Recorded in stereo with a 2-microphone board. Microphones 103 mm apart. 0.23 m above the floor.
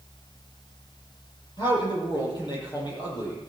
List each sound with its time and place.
1.6 s a man speaking: 40° left (ahead or behind), 8 m